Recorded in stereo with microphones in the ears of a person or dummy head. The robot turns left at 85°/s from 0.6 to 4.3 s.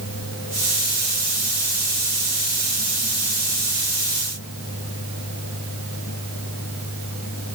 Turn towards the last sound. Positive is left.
No sound to turn to.